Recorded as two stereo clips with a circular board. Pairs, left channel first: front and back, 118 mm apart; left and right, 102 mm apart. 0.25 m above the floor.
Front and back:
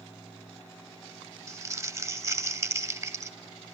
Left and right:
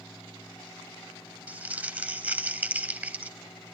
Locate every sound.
1.5 s crumpling: 145° right, 0.8 m